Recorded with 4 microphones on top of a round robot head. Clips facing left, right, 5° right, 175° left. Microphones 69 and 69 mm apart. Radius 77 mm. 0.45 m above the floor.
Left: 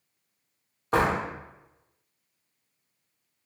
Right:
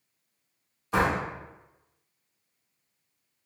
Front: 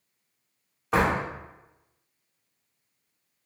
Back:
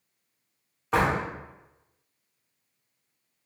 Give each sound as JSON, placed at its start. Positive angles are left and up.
{"t": 0.9, "sound": "a door slam", "azimuth_deg": 80, "distance_m": 1.1}